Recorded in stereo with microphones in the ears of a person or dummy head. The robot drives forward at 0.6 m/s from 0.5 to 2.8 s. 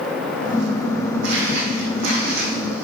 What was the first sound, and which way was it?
Footsteps, 50° right (ahead or behind).